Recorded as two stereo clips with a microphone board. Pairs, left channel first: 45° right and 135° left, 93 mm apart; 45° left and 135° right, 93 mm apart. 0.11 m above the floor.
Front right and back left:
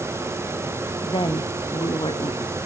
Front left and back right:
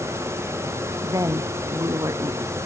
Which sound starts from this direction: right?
A woman speaking, at 1.0 s.